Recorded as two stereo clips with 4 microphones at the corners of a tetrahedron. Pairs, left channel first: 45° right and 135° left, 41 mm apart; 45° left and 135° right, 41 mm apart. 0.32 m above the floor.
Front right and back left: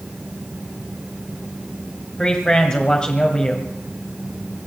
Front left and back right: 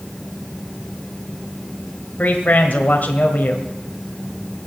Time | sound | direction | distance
2.2 | a man speaking | 15° left | 1.6 m